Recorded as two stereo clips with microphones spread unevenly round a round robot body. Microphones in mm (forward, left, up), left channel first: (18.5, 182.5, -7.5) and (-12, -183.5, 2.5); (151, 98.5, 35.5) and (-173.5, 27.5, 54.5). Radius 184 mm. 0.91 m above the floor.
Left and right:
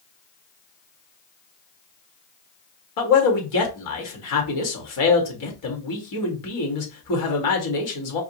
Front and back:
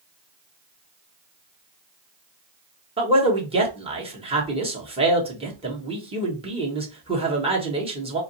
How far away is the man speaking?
About 1.7 m.